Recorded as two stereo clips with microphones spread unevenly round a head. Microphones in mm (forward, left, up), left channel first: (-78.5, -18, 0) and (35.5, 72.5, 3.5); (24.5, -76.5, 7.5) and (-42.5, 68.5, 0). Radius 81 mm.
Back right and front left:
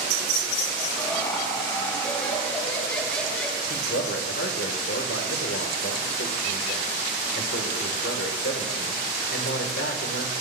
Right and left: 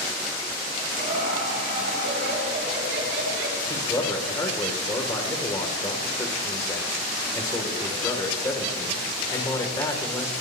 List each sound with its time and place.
1.0 s laughter: 155° left, 5 m; by 3.6 s 140° left, 4 m
3.7 s a man speaking: 135° right, 3 m